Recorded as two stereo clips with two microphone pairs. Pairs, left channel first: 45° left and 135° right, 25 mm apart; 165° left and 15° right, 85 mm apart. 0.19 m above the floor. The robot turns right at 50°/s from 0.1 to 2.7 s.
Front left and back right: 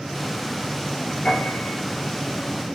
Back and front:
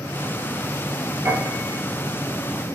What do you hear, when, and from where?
1.2 s a piano: 45° left, 4 m; by 1.8 s 70° left, 4 m